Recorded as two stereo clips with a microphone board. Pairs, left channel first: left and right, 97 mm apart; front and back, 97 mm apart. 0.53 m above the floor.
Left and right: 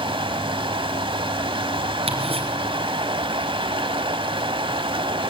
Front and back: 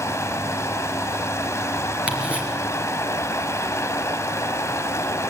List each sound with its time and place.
0.0 s running water: 60° right, 1.1 m
2.1 s ticking: 105° right, 3.5 m